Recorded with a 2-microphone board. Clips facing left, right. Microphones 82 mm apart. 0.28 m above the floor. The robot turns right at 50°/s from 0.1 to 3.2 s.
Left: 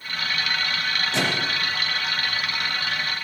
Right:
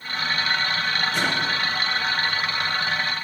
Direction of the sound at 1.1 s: 80° left.